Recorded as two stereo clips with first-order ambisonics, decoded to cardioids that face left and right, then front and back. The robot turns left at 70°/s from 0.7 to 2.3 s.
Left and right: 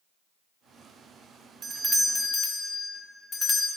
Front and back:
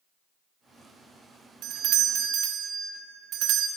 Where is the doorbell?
150° right, 0.7 m; by 3.7 s 160° left, 0.7 m.